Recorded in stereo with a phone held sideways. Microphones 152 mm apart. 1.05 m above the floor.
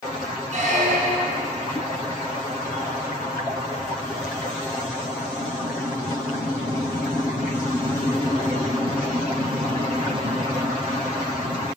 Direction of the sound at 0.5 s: 50° right (ahead or behind).